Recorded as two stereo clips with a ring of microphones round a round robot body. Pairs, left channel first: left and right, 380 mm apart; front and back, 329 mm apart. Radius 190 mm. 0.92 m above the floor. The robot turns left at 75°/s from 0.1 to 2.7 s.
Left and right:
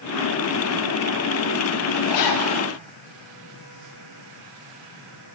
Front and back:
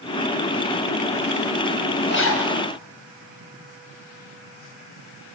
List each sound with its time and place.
2.1 s a zipper: 60° left, 6 m; by 2.5 s 30° left, 6 m